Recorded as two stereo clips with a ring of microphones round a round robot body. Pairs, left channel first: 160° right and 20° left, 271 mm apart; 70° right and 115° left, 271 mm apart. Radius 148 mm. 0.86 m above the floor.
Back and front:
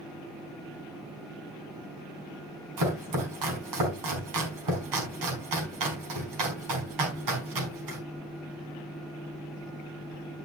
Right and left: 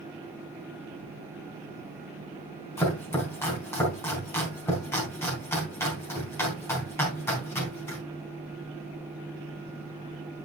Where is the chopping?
15° left, 4.5 m.